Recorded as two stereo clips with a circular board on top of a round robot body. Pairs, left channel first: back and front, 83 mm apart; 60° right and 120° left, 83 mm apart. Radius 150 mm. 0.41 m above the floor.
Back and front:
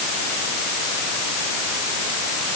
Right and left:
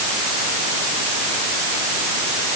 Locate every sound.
Only background noise.